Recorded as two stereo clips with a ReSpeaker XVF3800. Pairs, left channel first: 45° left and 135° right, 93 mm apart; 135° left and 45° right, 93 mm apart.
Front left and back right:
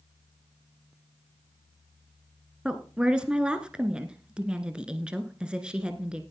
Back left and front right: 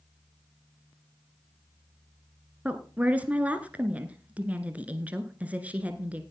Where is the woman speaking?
75° right, 1.1 m.